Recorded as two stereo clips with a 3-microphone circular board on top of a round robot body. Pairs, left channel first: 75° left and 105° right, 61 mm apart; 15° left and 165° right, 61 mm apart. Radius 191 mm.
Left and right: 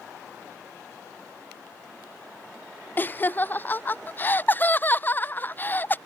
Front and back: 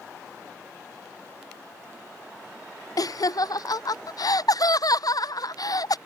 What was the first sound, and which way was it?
Laughter, 15° left.